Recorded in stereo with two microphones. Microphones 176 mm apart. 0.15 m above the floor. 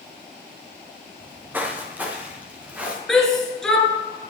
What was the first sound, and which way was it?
Footsteps, 10° right (ahead or behind).